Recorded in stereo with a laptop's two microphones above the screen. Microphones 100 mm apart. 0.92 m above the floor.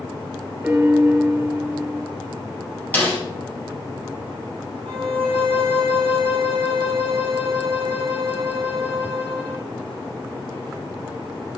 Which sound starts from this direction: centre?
A piano, at 0.6 s.